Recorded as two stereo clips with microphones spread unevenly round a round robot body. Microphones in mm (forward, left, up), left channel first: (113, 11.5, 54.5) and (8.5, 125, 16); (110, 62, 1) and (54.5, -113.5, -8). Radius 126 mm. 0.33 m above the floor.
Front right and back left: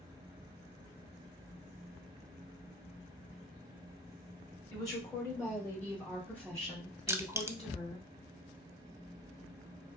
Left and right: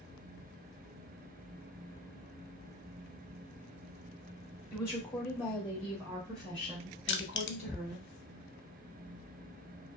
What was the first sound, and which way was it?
A woman speaking, 25° left.